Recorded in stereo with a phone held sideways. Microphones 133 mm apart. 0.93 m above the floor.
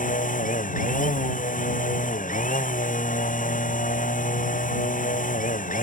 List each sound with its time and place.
0.0 s a machine running: 80° left